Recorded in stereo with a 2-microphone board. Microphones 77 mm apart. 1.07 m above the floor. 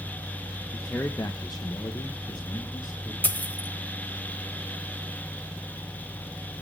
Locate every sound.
0.7 s a man speaking: 25° left (ahead or behind), 0.9 m; by 3.1 s 50° left (ahead or behind), 1.5 m
3.2 s a dropped coin: 25° left (ahead or behind), 0.9 m